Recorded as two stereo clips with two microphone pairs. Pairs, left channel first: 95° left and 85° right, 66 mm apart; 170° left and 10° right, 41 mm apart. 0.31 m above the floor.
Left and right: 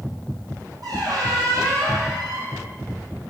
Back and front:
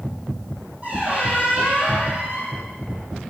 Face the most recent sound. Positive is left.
turn(degrees=-60)